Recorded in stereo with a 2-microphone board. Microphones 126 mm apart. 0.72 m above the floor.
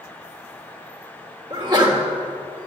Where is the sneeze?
35° right (ahead or behind), 2.5 m.